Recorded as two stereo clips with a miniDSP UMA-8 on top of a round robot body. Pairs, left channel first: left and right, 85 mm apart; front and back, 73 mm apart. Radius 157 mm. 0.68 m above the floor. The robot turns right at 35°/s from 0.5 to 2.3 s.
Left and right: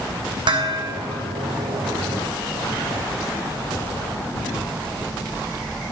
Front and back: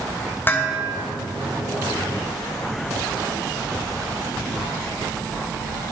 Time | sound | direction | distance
0.5 | dishes clattering | 65° right | 2.5 m